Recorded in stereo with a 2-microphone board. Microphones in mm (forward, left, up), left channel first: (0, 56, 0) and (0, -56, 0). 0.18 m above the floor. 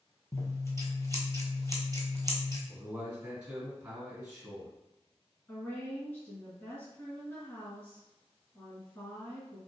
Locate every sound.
0.3 s scissors: 30° left (ahead or behind), 0.7 m
2.7 s a man speaking: 10° right (ahead or behind), 1.8 m
5.5 s a woman speaking: 20° left (ahead or behind), 1.7 m